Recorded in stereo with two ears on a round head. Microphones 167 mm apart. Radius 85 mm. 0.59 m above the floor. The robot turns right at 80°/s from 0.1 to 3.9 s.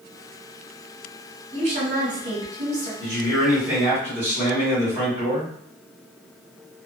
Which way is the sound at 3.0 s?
30° right (ahead or behind).